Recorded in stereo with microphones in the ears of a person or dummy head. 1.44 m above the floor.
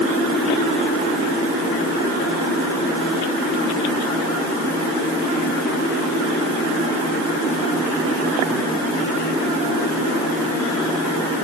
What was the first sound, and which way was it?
Only background noise.